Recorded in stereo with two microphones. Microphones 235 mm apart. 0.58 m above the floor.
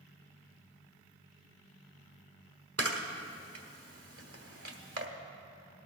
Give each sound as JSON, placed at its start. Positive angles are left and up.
{"t": 2.8, "sound": "a camera shutter", "side_deg": -70, "distance_m": 1.1}